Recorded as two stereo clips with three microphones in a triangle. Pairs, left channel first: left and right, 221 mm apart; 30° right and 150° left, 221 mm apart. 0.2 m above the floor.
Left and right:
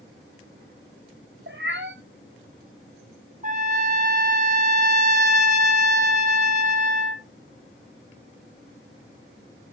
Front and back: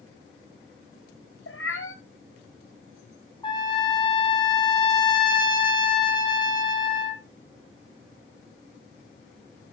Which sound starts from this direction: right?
A trumpet, at 3.4 s.